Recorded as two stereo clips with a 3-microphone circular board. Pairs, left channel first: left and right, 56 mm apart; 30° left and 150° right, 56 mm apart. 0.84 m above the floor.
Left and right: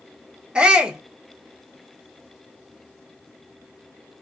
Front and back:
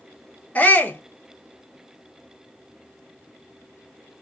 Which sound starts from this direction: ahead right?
A shout, at 0.6 s.